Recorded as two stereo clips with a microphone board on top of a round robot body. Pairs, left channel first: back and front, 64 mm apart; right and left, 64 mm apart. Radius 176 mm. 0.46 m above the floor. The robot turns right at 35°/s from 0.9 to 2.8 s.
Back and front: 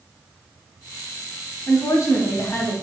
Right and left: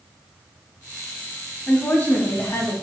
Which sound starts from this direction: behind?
A woman speaking, at 1.7 s.